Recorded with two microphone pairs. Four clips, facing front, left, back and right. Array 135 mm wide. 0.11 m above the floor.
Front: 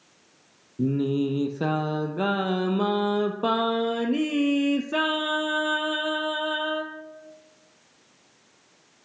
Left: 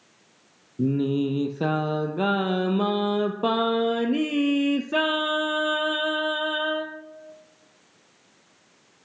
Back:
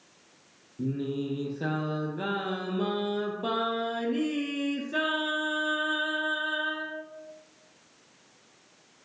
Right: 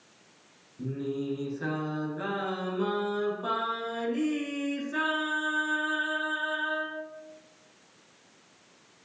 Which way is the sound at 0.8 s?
50° left.